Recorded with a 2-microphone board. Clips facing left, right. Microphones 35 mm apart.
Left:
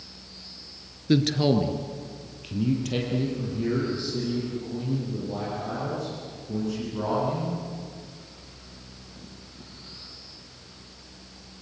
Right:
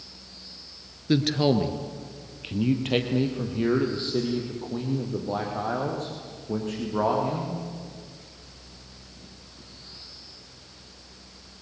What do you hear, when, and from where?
1.1 s a man speaking: centre (ahead or behind), 1.4 m; by 7.5 s 50° right (ahead or behind), 6 m